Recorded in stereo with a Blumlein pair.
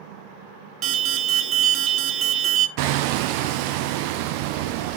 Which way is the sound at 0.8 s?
35° right.